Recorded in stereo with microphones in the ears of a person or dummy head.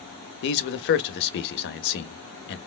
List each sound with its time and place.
0.4 s a man speaking: 50° left (ahead or behind), 0.6 m